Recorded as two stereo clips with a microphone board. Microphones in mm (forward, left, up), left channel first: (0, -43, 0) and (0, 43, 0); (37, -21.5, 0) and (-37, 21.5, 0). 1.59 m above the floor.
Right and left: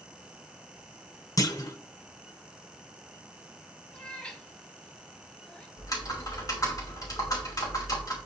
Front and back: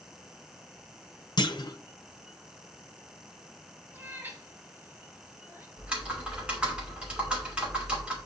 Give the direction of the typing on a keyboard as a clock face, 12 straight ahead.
4 o'clock.